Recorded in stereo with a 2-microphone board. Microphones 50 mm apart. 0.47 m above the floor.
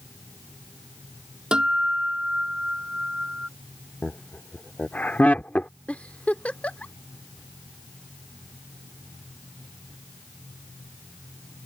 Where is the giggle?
30° left (ahead or behind).